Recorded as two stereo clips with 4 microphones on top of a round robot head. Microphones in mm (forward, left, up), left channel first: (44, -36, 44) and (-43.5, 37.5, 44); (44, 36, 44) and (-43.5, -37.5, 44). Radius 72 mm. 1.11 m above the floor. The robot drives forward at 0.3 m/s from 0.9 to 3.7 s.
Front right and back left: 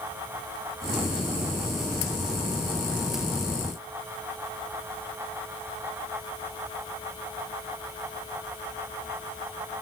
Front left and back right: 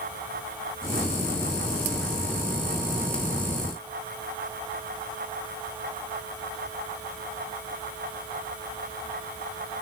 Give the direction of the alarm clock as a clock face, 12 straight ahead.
No alarm clock in this recording.